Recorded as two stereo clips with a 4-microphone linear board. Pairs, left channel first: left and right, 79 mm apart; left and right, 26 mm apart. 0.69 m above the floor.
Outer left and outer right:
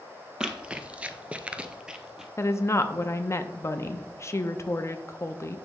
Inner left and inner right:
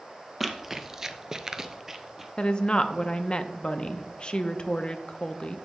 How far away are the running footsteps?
About 1.1 m.